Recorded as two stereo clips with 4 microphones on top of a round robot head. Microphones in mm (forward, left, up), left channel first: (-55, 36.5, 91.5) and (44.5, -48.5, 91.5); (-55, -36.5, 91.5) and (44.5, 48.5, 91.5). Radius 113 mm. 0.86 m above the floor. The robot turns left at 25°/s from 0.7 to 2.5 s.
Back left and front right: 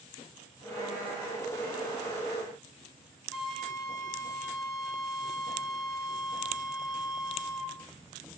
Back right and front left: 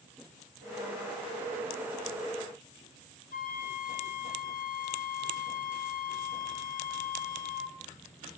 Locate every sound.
3.3 s a flute: 125° right, 2 m